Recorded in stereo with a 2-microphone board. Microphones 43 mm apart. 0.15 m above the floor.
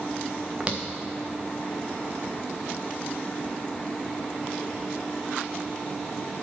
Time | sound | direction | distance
0.6 | footsteps | 25° right (ahead or behind) | 1.6 m